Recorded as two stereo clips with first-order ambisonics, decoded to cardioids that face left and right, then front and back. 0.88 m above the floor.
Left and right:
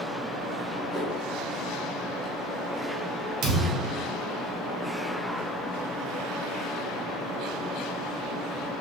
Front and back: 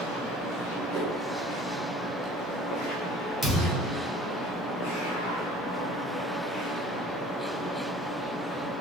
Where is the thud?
100° right, 1.5 m.